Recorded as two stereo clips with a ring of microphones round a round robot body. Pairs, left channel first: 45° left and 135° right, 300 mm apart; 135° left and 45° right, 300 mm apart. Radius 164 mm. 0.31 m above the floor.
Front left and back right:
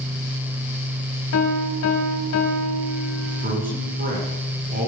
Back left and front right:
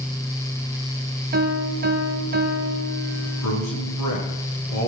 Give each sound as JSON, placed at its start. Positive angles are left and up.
{"t": 1.3, "sound": "a piano", "azimuth_deg": 10, "distance_m": 2.5}
{"t": 3.2, "sound": "a man speaking", "azimuth_deg": 165, "distance_m": 5.0}